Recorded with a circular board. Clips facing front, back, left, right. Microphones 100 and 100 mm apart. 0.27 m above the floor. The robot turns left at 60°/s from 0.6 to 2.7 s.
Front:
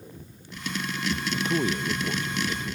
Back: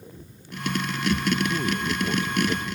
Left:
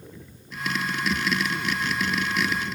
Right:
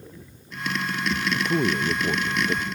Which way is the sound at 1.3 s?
50° right.